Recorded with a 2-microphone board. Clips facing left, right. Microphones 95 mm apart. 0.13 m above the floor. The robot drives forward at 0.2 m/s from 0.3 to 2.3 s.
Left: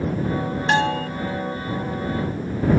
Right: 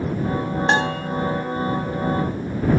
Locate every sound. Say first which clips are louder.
0.7 s a bell: left 2 dB; 30° right (ahead or behind), 0.7 m